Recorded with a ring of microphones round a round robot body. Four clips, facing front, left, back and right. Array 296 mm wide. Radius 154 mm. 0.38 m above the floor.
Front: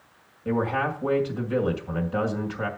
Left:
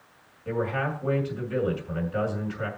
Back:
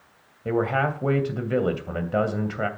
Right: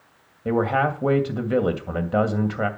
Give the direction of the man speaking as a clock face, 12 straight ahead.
4 o'clock.